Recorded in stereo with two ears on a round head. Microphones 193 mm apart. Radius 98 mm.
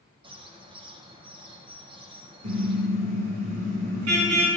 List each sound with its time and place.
0.2 s a bird: 20° right (ahead or behind), 1.6 m
2.4 s a car horn: 80° right, 6.5 m